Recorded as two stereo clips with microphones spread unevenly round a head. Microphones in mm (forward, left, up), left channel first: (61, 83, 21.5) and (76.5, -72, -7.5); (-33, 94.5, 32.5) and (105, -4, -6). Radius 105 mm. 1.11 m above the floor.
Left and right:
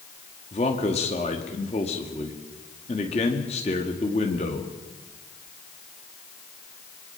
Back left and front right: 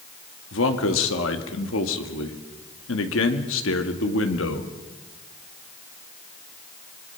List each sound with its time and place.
0.5 s a man speaking: 160° left, 2 m